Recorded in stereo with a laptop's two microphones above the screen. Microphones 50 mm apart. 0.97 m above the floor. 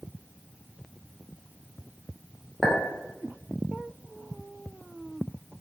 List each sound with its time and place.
2.6 s a clink: 10° right (ahead or behind), 0.6 m